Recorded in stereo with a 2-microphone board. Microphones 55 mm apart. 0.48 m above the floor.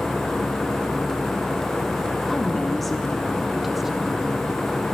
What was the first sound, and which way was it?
A woman speaking, 5° left (ahead or behind).